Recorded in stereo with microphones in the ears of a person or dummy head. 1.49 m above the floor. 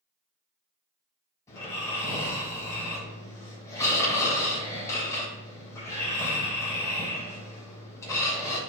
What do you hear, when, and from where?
1.5 s snoring: 20° left (ahead or behind), 4 m